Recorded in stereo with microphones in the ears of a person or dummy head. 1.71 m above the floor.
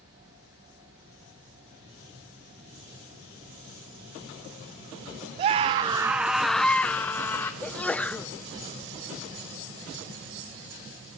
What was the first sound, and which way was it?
A scream, 25° right (ahead or behind).